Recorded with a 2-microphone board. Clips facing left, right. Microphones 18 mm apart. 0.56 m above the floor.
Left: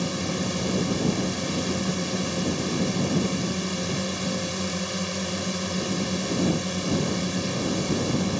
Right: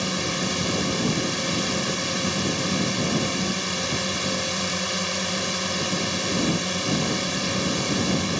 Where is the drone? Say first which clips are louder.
Right 2 dB; 25° right (ahead or behind).